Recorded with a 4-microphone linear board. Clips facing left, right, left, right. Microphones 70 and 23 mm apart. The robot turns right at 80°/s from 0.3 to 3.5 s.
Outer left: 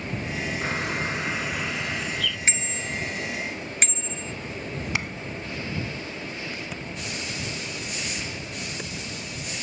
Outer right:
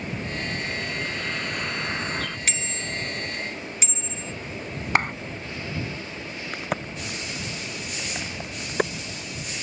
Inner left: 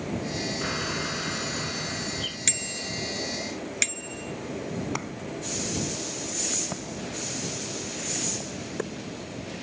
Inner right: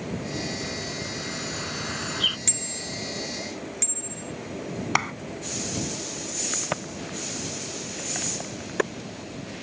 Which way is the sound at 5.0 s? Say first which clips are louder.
Outer right 10 dB, inner right 9 dB; 50° right (ahead or behind).